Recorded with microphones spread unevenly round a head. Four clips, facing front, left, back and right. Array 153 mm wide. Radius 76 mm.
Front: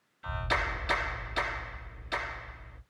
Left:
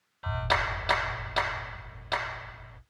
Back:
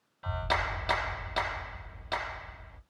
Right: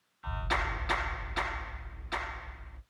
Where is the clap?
125° left, 1.8 m.